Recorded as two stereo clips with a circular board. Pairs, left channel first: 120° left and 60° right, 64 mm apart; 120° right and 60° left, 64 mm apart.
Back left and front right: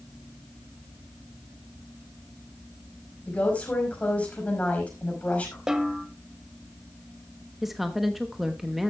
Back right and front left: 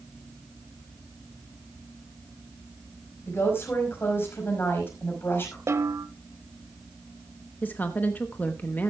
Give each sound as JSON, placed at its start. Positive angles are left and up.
{"t": 3.3, "sound": "a woman speaking", "azimuth_deg": -175, "distance_m": 5.0}
{"t": 5.7, "sound": "a snare drum", "azimuth_deg": 20, "distance_m": 1.3}
{"t": 7.6, "sound": "a woman speaking", "azimuth_deg": -145, "distance_m": 0.9}